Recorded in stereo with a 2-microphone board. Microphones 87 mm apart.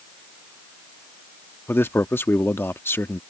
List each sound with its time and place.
1.7 s a man speaking: 30° left (ahead or behind)